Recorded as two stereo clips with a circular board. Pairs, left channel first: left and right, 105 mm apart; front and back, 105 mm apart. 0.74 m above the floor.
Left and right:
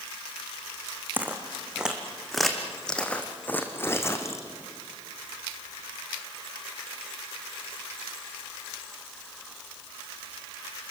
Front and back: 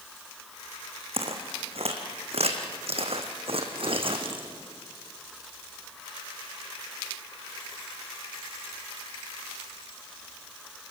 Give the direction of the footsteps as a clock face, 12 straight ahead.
5 o'clock.